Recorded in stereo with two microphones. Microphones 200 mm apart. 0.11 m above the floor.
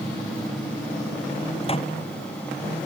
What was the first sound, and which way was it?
A microwave, 30° left (ahead or behind).